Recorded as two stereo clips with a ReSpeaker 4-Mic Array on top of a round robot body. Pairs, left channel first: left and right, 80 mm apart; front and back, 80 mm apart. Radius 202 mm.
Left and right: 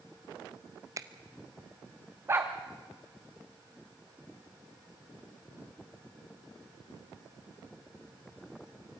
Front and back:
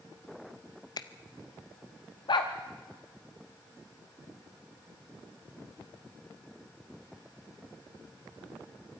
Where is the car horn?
No car horn in this recording.